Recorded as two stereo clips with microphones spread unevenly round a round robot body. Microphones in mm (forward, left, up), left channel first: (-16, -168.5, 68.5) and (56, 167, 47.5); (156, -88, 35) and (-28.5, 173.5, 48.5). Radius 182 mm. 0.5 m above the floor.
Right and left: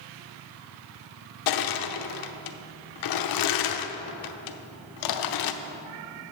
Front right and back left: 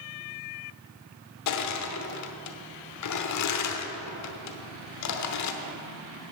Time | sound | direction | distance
1.5 | crushing | 85° right | 0.9 m